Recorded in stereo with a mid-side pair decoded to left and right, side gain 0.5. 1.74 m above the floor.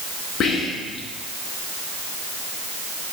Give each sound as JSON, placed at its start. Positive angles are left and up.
{"t": 0.4, "sound": "whispering", "azimuth_deg": 60, "distance_m": 2.5}